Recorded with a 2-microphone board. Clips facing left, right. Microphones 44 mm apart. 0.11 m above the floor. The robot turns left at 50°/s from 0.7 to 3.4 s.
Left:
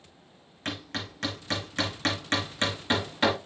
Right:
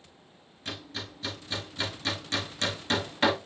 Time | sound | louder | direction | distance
0.7 | hammering | left 4 dB | 55° left (ahead or behind) | 5 m